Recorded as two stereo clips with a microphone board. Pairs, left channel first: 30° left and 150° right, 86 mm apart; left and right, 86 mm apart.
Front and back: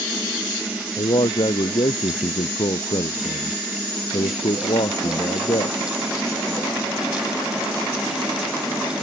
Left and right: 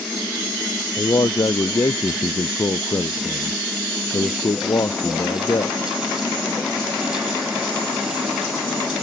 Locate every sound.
1.0 s a man speaking: 50° left